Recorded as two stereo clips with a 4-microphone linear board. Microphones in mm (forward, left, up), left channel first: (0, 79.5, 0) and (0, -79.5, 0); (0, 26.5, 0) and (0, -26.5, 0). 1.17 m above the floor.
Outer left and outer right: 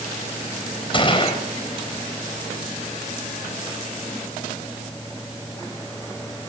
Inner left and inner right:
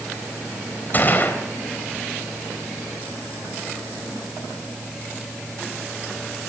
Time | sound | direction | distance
0.9 | a gunshot | 35° left (ahead or behind) | 4 m